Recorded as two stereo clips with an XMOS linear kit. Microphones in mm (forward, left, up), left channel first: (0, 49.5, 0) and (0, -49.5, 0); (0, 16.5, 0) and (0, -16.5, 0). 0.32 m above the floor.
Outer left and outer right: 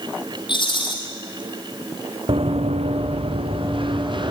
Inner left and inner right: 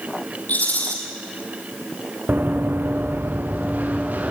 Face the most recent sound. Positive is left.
turn(degrees=-55)  # may be behind; listen again after turning